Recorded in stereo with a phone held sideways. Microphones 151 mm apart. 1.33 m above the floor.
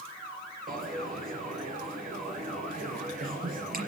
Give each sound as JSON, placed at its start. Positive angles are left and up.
{"t": 0.7, "sound": "a dropped coin", "side_deg": -60, "distance_m": 4.0}